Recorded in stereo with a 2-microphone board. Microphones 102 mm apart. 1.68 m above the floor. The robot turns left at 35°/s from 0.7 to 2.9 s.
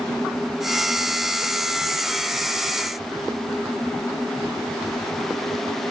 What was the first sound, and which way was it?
Only background noise.